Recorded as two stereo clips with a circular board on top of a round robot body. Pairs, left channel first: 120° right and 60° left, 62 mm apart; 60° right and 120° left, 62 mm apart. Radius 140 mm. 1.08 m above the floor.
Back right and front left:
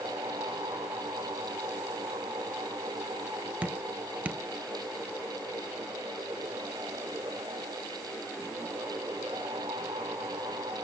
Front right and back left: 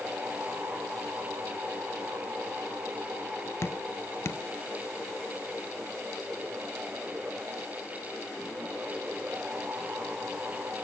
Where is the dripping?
10° right, 0.5 m.